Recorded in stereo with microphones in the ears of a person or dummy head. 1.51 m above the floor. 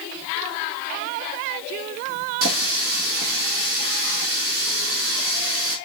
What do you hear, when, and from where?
2.4 s a running tap: 75° right (ahead or behind), 1.8 m